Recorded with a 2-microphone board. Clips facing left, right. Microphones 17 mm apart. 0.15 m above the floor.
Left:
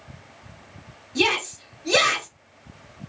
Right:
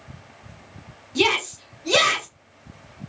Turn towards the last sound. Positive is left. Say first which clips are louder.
# right 1 dB
turn(degrees=-20)  # may be behind; listen again after turning